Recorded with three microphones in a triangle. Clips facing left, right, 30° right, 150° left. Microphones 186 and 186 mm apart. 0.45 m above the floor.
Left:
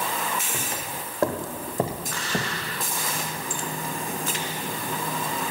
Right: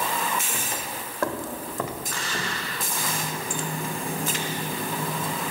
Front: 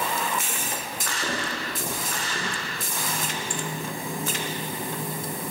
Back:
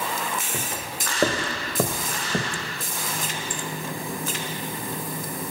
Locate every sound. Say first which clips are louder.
0.5 s footsteps: even, back 1 dB; 170° left, 2 m; by 2.7 s 130° left, 1.7 m
3.0 s a running tap: right 1 dB, front 1 dB; 90° right, 2.5 m